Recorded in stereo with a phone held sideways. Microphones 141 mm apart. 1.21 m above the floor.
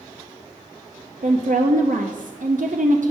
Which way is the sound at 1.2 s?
65° right (ahead or behind).